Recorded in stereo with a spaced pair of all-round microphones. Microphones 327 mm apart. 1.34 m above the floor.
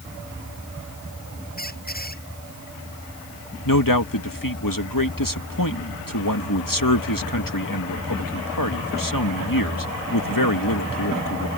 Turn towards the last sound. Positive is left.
turn(degrees=80)